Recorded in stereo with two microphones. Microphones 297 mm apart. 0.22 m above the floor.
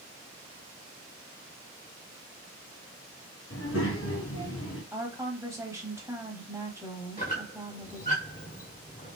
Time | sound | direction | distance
3.5 | a child speaking | 55° left (ahead or behind) | 2 m
4.9 | a woman speaking | 10° right (ahead or behind) | 1.1 m
7.2 | a squeak | 30° left (ahead or behind) | 1.5 m